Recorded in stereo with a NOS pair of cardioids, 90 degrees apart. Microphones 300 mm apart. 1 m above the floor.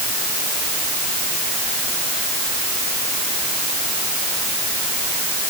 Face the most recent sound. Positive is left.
No sound to turn to.